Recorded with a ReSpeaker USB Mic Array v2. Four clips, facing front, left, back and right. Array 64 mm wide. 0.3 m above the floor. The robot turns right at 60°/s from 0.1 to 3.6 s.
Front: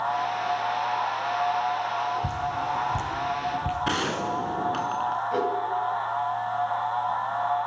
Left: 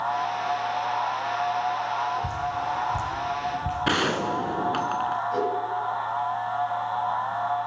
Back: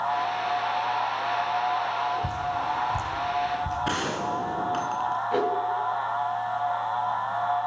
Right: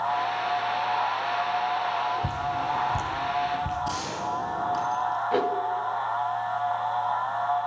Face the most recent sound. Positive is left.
turn(degrees=-105)